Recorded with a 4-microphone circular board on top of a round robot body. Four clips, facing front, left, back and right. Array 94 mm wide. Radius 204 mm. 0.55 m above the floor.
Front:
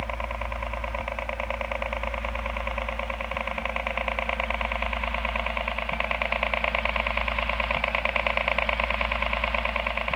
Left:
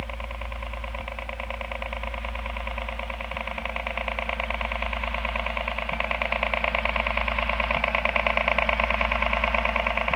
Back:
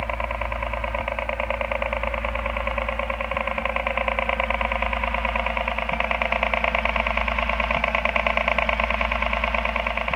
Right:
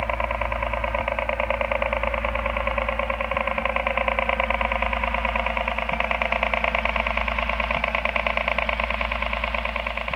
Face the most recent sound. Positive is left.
turn(degrees=130)